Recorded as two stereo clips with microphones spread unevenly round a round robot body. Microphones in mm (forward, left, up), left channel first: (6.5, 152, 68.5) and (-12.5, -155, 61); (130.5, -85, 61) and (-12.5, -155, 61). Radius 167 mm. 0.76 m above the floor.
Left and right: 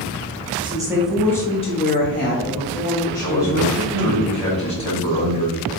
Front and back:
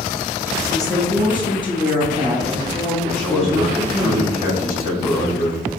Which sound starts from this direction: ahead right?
A woman speaking, at 0.6 s.